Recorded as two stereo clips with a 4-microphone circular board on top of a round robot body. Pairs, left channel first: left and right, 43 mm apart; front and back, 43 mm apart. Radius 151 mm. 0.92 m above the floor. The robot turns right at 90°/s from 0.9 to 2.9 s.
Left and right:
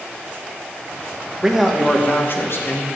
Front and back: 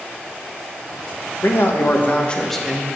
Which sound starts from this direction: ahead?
A man speaking, at 1.4 s.